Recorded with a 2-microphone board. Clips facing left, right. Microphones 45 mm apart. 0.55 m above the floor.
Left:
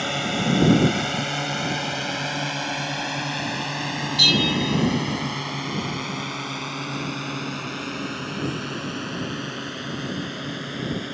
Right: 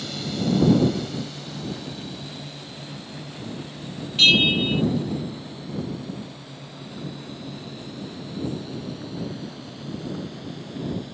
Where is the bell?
35° right (ahead or behind).